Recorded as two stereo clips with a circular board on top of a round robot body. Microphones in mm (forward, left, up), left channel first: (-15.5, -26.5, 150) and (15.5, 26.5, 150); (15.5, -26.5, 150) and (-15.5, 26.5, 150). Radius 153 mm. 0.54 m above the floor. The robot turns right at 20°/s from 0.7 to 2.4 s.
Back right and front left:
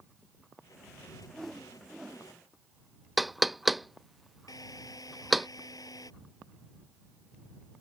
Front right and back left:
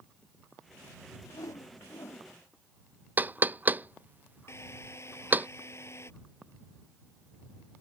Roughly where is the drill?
Right.